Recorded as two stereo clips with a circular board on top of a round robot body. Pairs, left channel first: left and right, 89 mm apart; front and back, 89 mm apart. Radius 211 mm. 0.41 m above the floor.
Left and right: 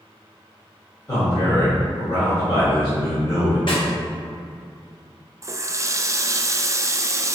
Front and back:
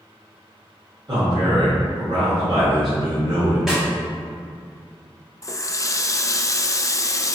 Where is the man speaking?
140° left, 1.9 m.